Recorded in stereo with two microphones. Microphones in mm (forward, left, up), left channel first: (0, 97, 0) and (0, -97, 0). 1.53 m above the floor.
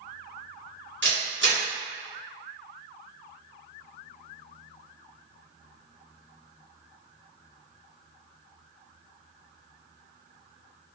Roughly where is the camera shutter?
Right.